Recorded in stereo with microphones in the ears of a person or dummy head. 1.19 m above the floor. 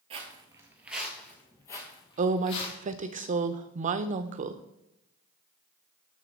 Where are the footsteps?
30° right (ahead or behind), 1.6 m; by 2.8 s 40° left (ahead or behind), 2.5 m.